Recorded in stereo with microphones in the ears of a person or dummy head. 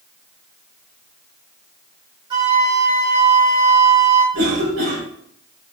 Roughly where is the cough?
Right.